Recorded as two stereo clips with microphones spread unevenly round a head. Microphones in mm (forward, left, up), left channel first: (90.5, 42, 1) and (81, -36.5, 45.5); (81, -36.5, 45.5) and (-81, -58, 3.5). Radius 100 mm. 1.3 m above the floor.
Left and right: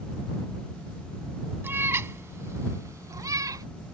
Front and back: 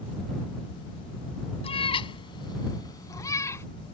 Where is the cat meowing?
45° right; by 3.6 s 65° right.